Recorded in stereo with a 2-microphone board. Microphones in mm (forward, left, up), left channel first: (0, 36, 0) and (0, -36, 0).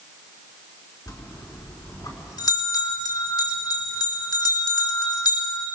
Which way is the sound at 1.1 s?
70° left (ahead or behind).